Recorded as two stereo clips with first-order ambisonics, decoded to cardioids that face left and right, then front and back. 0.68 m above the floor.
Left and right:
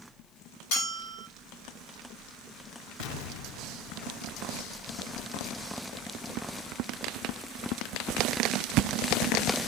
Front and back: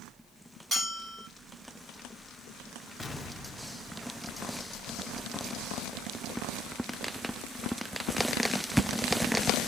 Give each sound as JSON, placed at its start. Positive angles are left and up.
{"t": 0.7, "sound": "a bell", "azimuth_deg": 100, "distance_m": 6.5}
{"t": 3.0, "sound": "an explosion", "azimuth_deg": 75, "distance_m": 0.7}